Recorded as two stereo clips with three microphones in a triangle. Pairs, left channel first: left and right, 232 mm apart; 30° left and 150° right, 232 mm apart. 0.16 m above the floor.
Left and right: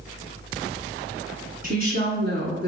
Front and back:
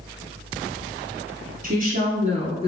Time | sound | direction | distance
1.6 | a woman speaking | 120° right | 1.4 m